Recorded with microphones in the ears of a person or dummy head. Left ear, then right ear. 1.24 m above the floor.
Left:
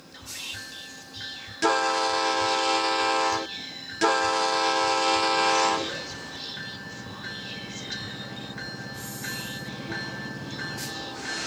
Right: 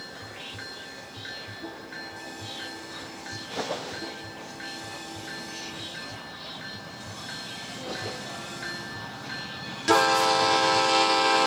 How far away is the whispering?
About 3 m.